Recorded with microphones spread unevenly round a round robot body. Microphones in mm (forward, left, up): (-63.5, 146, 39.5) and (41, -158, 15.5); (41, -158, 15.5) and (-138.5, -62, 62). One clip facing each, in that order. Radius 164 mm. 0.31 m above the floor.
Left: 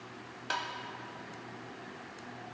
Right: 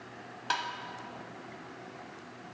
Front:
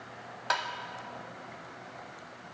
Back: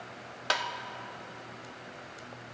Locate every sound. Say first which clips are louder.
0.5 s tapping: right 1 dB, back 1 dB; 150° right, 0.7 m